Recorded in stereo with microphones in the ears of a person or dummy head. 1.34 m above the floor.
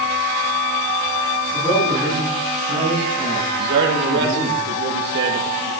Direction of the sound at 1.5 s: 5° left (ahead or behind).